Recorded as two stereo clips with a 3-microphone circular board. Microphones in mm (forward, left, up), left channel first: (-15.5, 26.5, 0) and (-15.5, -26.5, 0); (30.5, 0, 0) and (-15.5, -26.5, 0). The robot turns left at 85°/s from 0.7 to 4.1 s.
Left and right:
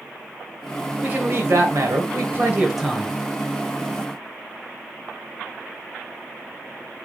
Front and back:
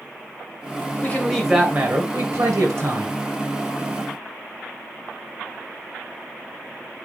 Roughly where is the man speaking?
Ahead right.